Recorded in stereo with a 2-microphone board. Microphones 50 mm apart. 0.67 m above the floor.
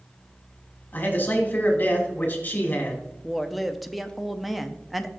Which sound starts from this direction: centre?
A woman speaking, at 3.2 s.